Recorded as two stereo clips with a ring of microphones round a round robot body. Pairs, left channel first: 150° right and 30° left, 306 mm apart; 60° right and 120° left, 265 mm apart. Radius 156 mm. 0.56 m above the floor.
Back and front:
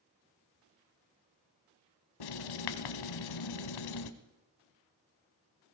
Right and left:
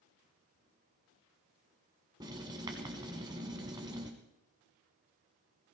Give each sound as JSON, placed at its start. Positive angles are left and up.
{"t": 2.2, "sound": "writing", "azimuth_deg": -165, "distance_m": 1.1}